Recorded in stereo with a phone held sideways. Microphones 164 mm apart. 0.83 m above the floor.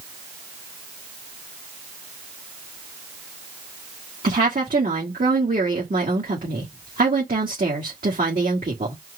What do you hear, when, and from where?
4.2 s a woman speaking: 60° right (ahead or behind), 1.7 m